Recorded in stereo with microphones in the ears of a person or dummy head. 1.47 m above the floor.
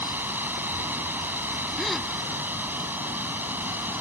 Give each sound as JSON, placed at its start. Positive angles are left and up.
{"t": 0.0, "sound": "running water", "side_deg": -5}
{"t": 1.8, "sound": "a gasp", "side_deg": 5}